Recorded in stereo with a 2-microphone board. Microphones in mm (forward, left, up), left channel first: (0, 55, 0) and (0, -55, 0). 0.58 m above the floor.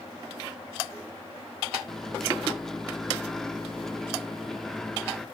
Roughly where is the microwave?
Centre.